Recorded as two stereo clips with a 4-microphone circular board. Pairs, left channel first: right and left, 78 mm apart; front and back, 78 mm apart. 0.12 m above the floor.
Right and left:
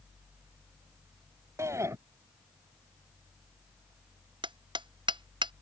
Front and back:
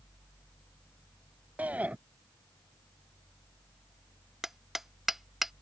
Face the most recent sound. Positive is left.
turn(degrees=95)